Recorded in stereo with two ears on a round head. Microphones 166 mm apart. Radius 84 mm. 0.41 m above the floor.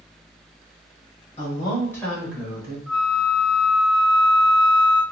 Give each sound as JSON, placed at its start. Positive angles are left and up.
{"t": 1.4, "sound": "a woman speaking", "side_deg": 30, "distance_m": 1.8}
{"t": 2.9, "sound": "a flute", "side_deg": 5, "distance_m": 1.4}